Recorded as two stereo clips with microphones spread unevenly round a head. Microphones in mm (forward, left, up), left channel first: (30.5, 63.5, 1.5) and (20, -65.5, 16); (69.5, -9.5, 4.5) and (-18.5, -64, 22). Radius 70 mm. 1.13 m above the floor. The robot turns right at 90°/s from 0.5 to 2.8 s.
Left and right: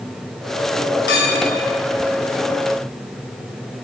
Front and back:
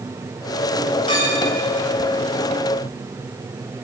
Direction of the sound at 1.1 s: 90° left.